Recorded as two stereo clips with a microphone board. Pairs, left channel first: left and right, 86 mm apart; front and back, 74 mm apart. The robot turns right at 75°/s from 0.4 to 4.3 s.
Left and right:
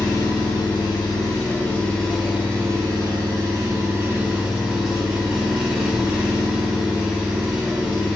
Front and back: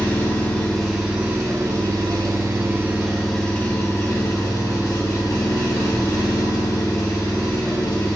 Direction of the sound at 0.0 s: 55° left.